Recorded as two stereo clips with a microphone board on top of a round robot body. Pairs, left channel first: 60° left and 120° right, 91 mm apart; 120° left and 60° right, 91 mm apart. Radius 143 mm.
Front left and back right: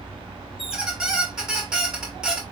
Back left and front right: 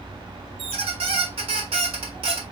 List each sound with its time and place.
0.6 s a squeak: 35° right, 1.3 m